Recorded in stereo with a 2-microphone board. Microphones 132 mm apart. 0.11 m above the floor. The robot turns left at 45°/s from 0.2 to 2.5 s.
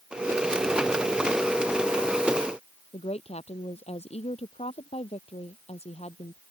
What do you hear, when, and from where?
2.9 s a woman speaking: 50° left (ahead or behind)